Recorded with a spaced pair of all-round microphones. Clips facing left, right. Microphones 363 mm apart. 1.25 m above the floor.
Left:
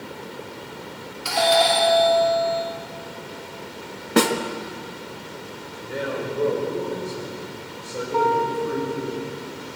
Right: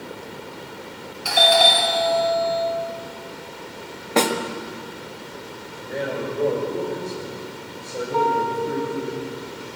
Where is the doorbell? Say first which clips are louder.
Even; 5° left (ahead or behind), 5 m.